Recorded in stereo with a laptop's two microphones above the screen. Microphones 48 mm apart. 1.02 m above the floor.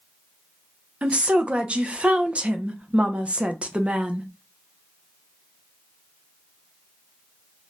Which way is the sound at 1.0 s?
25° right (ahead or behind).